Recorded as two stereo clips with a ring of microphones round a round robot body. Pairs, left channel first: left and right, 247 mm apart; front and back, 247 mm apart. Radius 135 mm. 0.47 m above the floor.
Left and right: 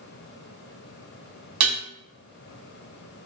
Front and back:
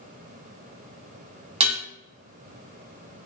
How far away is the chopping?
No chopping in this recording.